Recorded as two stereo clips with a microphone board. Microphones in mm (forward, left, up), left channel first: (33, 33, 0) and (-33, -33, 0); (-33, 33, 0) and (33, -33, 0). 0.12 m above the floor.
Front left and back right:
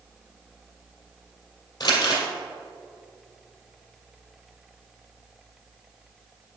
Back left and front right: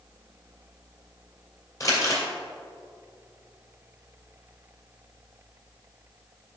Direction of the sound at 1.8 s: 85° left.